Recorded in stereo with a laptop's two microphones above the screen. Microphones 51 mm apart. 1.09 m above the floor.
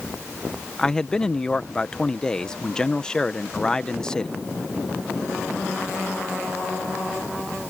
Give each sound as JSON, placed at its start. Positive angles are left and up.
{"t": 0.8, "sound": "a man speaking", "side_deg": 15}